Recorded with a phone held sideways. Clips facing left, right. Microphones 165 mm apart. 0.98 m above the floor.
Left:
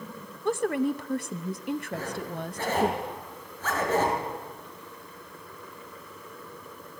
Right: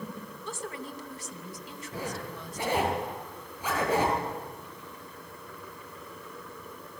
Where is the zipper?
10° right (ahead or behind), 6 m.